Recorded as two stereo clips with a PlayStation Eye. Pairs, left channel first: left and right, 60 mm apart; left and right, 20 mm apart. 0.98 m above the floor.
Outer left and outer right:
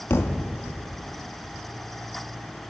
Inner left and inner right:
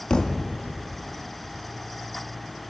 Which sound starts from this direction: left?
A thud, at 0.1 s.